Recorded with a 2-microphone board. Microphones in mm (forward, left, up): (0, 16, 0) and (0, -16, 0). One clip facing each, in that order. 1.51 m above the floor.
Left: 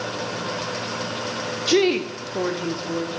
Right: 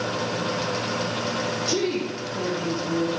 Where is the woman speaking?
60° left (ahead or behind), 0.6 m; by 3.1 s 20° left (ahead or behind), 0.9 m.